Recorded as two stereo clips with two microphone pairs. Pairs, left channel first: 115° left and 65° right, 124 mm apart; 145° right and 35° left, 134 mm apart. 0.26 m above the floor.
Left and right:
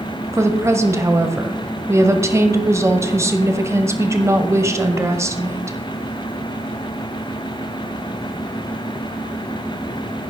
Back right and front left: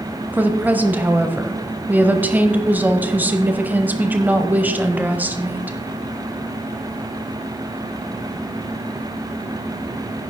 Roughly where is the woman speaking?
Ahead right.